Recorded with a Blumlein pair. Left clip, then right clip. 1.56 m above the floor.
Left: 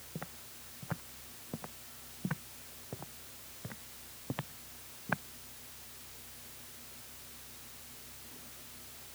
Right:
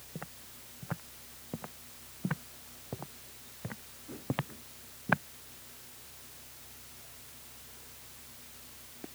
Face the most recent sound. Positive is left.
turn(degrees=-20)